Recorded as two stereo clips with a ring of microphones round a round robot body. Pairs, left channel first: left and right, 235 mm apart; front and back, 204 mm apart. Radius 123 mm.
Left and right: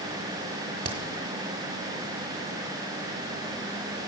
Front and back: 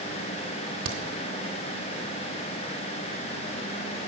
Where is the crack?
150° right, 1.1 m.